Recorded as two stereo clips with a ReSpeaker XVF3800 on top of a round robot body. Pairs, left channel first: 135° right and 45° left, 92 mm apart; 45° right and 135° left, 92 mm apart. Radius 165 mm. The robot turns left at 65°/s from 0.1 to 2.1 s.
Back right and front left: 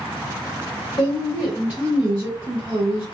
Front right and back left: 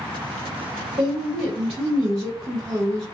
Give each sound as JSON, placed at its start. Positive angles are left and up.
{"t": 1.0, "sound": "a woman speaking", "azimuth_deg": 170, "distance_m": 1.5}